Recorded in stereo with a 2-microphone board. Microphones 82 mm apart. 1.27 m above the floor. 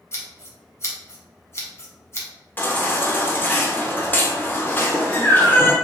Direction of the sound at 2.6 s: 25° left (ahead or behind).